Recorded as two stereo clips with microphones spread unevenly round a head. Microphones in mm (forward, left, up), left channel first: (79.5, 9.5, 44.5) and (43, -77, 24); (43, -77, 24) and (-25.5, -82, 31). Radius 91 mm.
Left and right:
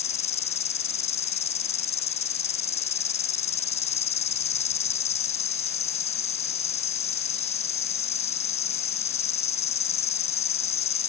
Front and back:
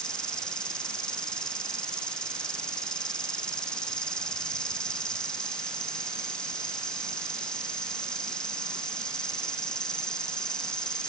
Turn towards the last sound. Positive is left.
turn(degrees=90)